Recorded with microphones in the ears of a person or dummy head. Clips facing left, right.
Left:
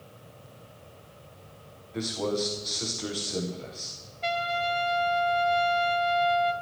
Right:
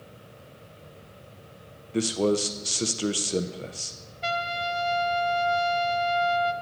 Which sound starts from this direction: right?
A man speaking, at 1.9 s.